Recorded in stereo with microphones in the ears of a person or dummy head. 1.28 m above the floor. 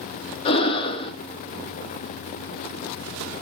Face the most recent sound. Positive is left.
turn(degrees=30)  # may be behind; listen again after turning